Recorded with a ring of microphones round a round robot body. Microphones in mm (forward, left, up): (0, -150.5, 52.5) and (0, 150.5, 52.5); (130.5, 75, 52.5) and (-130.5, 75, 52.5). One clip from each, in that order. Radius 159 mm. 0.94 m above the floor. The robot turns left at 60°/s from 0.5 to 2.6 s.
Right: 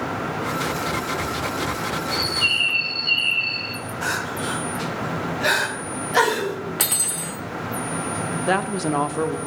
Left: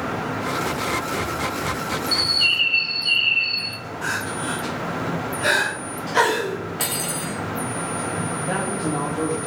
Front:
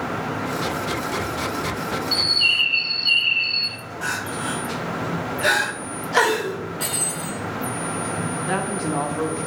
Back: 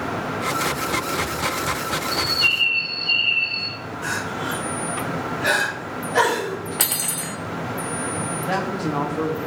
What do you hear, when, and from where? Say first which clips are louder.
2.1 s a bird: left 2 dB, front 2 dB; 65° left, 0.5 m; by 3.8 s 35° left, 0.5 m
4.0 s crying: even, even; 10° right, 3 m
6.8 s cutlery clinking: right 2 dB, back 2 dB; 160° right, 1.0 m
8.5 s a woman speaking: right 5 dB, back 1 dB; 85° right, 0.8 m